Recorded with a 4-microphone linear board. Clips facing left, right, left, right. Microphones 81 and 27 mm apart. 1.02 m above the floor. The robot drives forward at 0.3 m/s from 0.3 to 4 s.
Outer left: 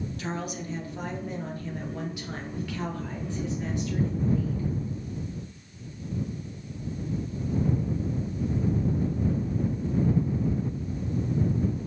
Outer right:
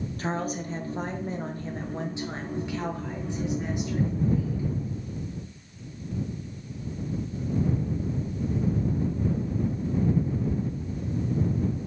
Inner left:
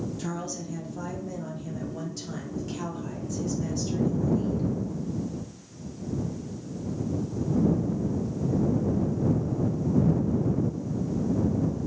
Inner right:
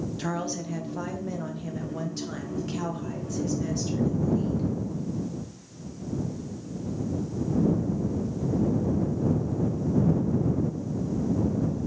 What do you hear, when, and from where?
0.2 s a woman speaking: 40° right (ahead or behind), 0.6 m; by 4.7 s 15° right (ahead or behind), 1.3 m